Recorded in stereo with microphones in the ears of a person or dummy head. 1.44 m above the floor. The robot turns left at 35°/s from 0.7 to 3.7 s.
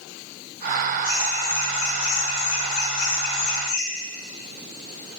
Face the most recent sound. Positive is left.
turn(degrees=30)